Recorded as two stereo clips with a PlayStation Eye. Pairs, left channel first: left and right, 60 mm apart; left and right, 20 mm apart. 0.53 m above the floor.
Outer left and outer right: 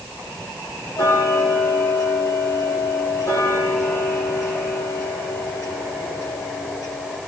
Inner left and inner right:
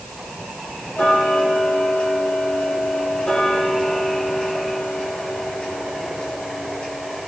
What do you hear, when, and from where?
1.0 s ticking: 80° left, 8 m